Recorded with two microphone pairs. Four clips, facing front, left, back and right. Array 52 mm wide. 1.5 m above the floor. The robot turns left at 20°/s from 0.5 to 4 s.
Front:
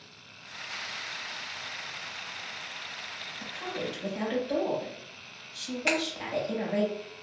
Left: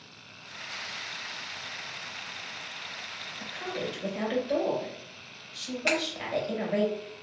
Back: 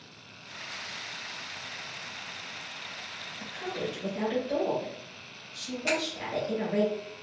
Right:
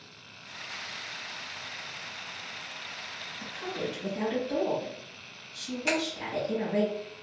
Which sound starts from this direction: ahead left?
A finger snap, at 5.9 s.